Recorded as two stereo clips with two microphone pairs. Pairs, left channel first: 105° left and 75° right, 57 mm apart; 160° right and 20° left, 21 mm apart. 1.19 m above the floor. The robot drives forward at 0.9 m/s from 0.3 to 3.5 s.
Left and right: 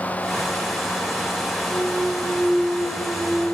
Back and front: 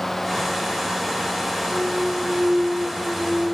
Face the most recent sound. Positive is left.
turn(degrees=140)